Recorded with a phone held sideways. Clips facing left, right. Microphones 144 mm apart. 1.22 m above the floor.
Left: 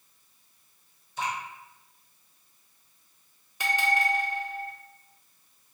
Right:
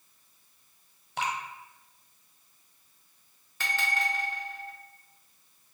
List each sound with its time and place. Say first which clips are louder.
1.2 s dripping: even; 65° right (ahead or behind), 0.9 m
3.6 s a bell: left 6 dB; 15° left (ahead or behind), 1.3 m